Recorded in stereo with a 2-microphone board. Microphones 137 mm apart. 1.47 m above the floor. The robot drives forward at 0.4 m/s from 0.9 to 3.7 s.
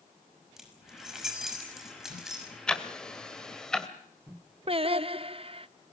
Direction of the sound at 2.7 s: 5° left (ahead or behind).